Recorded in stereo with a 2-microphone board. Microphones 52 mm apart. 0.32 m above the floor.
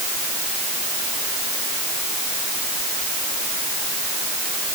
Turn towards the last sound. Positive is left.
No sound to turn to.